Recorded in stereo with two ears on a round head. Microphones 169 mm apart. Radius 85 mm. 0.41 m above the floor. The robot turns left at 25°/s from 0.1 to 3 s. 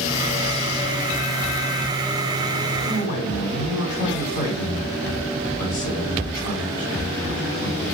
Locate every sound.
2.8 s a man speaking: 40° left (ahead or behind), 2 m; by 7.9 s 45° left (ahead or behind), 2 m